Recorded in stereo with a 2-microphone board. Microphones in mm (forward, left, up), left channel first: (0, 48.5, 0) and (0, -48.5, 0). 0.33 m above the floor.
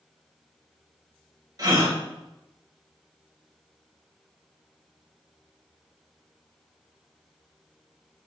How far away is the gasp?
About 1.8 m.